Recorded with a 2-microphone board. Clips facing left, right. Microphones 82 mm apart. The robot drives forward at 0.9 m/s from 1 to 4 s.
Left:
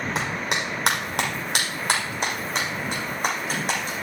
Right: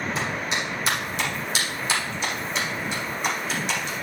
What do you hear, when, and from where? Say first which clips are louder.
0.1 s a clap: left 1 dB; 65° left (ahead or behind), 5.5 m; by 3.9 s 45° left (ahead or behind), 7 m